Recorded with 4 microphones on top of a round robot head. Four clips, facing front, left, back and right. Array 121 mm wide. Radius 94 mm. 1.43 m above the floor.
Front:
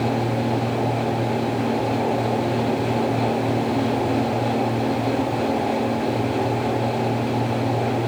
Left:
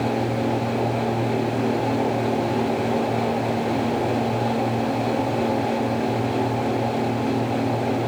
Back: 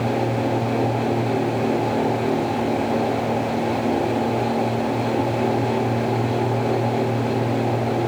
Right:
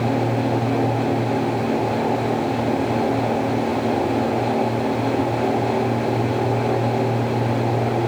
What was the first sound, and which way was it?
Only background noise.